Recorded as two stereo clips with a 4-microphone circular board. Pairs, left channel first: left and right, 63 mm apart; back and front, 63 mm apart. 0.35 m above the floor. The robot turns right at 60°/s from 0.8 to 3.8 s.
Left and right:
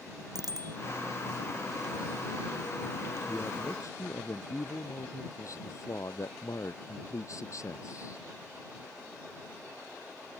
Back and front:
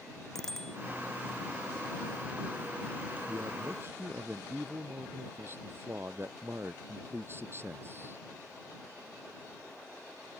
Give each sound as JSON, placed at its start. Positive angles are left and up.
{"t": 0.3, "sound": "a bicycle bell", "azimuth_deg": -95}
{"t": 3.3, "sound": "a man speaking", "azimuth_deg": 20}